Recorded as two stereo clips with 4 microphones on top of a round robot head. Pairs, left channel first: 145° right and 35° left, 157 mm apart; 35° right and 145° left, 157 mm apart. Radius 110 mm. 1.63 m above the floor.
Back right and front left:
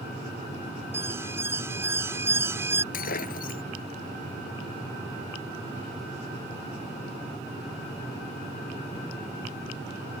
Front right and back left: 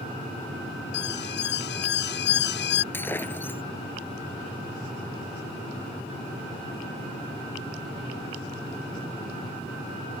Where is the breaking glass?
110° right.